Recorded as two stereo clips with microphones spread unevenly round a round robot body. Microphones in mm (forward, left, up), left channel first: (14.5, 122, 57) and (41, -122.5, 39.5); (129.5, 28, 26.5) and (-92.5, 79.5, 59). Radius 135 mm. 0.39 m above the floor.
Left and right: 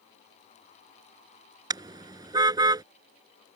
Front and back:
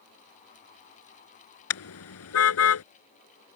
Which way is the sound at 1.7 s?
10° right.